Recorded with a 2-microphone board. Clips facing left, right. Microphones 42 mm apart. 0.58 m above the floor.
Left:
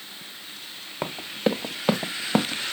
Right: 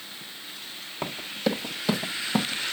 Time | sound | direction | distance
1.0 | running footsteps | 20° left (ahead or behind) | 1.6 m